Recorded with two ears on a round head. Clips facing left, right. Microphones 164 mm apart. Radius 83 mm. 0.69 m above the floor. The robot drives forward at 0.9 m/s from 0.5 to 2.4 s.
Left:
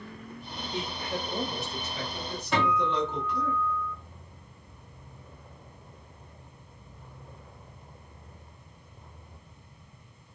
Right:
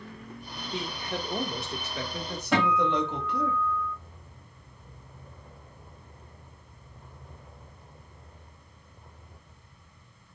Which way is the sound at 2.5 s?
55° right (ahead or behind).